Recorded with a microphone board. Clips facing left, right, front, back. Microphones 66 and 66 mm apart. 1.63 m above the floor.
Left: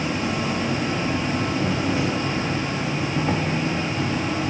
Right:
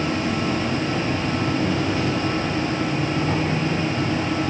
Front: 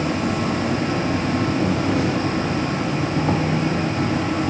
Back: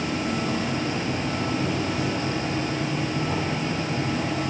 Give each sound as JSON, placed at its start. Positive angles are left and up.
{"t": 0.0, "sound": "an insect", "azimuth_deg": 20, "distance_m": 5.0}